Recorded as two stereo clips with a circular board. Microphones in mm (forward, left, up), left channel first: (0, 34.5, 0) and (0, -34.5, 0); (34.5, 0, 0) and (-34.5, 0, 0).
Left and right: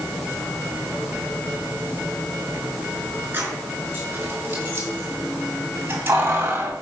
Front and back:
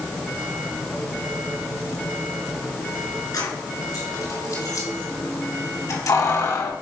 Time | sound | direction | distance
3.3 | keys jangling | 30° right | 4.5 m